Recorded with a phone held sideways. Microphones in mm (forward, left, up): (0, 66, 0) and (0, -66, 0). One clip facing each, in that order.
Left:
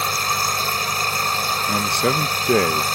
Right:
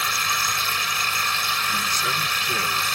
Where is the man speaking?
65° left (ahead or behind).